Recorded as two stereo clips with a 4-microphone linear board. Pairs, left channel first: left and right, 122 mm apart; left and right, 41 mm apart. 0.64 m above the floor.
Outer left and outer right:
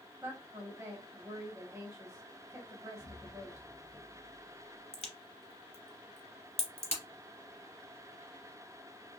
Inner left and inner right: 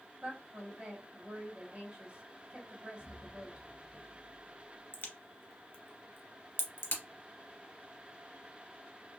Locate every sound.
0.2 s a woman speaking: 25° right (ahead or behind), 1.3 m
3.0 s an explosion: 40° left (ahead or behind), 0.7 m
4.9 s a crack: 65° left (ahead or behind), 0.9 m